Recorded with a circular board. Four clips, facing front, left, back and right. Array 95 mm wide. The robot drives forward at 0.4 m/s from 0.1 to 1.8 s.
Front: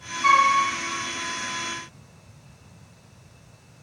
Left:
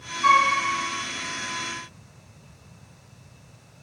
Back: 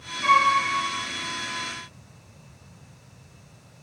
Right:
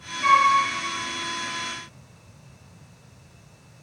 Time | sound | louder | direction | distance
0.2 | a flute | right 1 dB, front 1 dB | 125° right | 3 m